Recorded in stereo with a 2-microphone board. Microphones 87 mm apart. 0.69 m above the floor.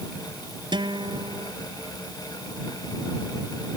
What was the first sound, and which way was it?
A guitar, 60° right (ahead or behind).